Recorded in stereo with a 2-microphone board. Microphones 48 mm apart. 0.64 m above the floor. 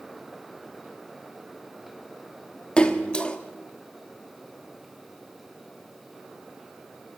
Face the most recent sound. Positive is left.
turn(degrees=20)  # may be behind; listen again after turning